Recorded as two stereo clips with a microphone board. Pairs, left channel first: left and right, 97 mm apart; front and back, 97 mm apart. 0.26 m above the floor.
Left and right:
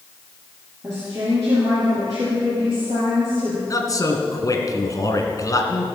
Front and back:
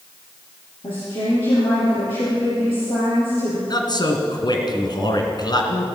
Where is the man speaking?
40° left, 2 m.